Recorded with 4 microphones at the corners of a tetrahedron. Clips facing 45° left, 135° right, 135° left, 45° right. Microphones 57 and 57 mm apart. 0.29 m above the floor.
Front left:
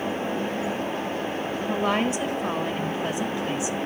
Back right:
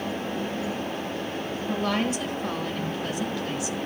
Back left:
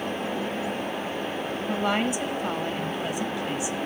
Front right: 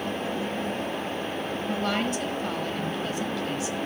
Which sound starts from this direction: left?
A woman speaking, at 1.7 s.